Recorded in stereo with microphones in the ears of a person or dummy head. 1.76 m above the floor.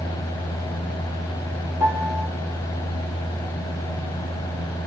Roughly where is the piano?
Centre.